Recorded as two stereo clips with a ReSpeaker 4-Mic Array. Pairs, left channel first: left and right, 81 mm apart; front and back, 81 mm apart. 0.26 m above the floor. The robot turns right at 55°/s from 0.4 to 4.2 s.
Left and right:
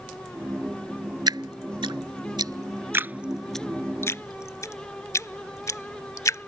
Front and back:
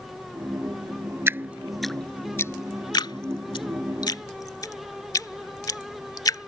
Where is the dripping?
120° right; by 6.5 s 40° left.